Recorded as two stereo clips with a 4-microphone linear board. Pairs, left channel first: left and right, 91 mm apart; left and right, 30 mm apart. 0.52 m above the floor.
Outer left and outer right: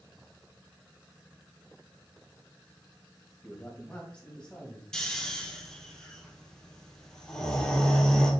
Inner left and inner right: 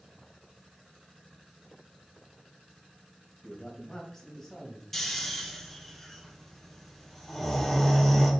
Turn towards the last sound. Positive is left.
turn(degrees=10)  # may be behind; listen again after turning